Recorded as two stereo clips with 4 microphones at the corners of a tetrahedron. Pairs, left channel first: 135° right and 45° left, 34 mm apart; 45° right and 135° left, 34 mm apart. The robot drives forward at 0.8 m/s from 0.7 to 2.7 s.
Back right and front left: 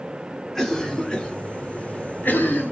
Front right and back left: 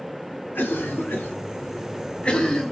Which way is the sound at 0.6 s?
50° right.